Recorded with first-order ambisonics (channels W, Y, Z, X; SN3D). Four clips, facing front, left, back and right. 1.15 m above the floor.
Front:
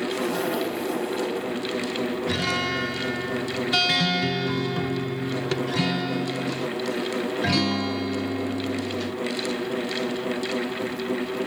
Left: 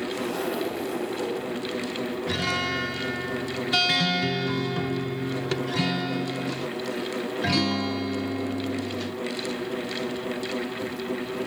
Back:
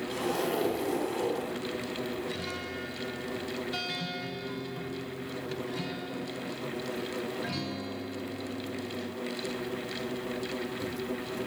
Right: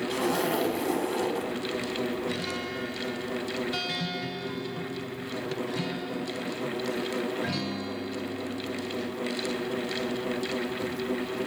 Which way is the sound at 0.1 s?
90° right.